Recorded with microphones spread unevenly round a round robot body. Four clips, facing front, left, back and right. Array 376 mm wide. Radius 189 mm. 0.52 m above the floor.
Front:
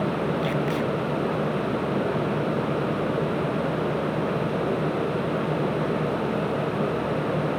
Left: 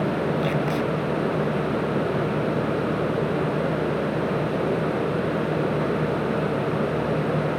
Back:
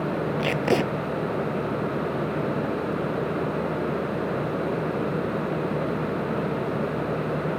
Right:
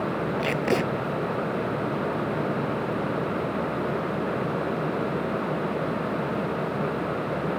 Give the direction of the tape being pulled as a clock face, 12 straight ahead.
5 o'clock.